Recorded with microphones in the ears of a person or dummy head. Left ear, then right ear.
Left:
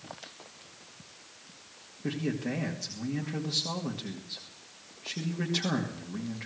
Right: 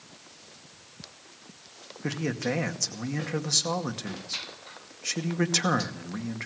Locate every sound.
2.0 s a man speaking: 45° right (ahead or behind), 2 m